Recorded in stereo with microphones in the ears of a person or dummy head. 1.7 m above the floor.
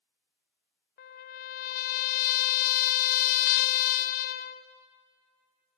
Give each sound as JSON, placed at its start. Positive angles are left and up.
{"t": 1.0, "sound": "a trumpet", "side_deg": 50, "distance_m": 0.5}